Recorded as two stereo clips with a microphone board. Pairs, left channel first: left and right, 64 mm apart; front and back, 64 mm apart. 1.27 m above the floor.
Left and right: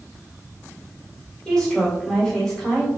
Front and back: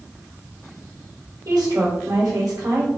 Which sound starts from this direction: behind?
A woman speaking, at 1.4 s.